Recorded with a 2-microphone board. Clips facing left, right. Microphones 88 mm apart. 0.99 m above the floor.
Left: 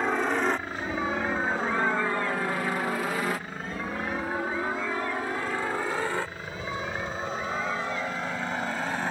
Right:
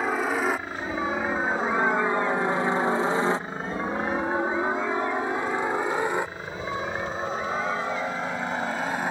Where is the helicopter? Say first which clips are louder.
Even; 5° right (ahead or behind); by 9.1 s 10° right (ahead or behind).